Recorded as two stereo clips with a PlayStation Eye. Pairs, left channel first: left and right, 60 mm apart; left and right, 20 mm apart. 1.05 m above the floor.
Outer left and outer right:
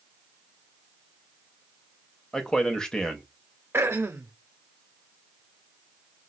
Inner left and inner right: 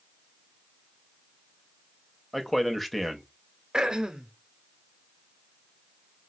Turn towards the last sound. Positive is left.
turn(degrees=-40)  # may be behind; listen again after turning